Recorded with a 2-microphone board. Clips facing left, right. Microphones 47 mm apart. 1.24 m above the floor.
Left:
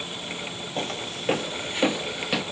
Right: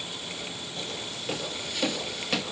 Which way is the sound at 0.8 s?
50° left (ahead or behind).